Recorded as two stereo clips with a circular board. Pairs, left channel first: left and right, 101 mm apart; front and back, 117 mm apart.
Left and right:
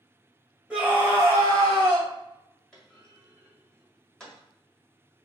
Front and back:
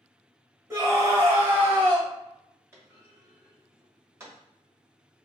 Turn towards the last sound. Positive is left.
turn(degrees=165)